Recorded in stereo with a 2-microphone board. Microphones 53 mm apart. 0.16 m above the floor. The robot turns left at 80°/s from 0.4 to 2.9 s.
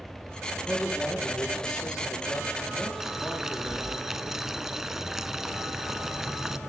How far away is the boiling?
About 0.5 m.